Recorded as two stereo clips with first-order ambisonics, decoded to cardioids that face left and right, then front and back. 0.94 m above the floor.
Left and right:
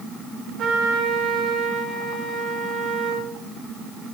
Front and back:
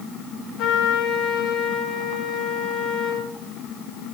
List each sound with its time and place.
0.6 s a trumpet: 35° right, 1.4 m